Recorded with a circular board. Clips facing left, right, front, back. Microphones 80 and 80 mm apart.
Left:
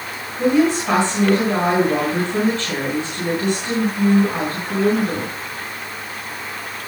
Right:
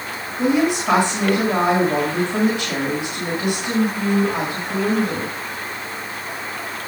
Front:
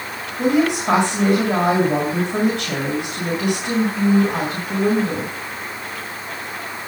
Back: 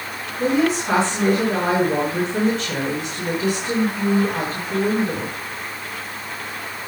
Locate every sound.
0.4 s a woman speaking: 10° right, 4.5 m